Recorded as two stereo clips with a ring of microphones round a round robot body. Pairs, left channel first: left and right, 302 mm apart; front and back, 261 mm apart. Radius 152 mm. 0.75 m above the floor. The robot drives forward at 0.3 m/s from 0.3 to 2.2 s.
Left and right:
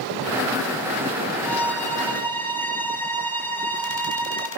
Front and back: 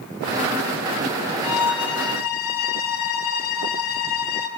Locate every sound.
1.4 s a violin: 5° left, 2 m; by 4.5 s 10° left, 1.8 m